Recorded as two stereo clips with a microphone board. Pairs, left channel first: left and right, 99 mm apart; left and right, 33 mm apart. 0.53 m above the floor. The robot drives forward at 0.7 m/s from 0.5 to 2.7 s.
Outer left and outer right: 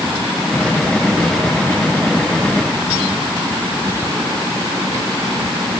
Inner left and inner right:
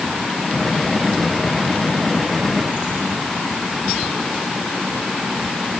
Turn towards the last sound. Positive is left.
No sound to turn to.